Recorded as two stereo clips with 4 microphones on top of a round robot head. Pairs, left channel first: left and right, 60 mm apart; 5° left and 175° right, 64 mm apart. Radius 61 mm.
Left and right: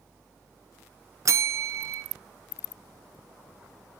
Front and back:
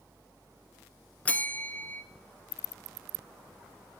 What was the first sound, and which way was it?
A bell, 65° right.